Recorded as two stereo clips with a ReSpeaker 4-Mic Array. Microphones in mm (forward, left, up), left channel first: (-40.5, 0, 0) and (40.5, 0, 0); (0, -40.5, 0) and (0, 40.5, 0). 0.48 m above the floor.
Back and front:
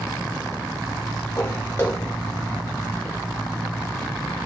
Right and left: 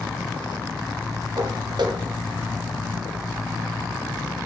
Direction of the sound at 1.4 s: 120° left.